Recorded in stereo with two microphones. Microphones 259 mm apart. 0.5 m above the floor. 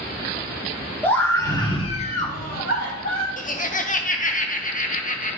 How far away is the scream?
About 1.9 m.